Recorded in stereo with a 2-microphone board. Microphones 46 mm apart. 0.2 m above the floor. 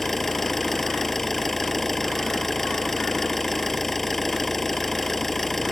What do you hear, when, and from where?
0.0 s an engine running: 5° left (ahead or behind)